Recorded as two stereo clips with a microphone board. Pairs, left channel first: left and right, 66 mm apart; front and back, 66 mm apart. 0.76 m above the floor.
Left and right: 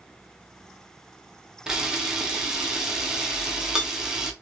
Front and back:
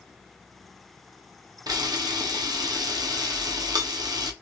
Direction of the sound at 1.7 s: 170° right.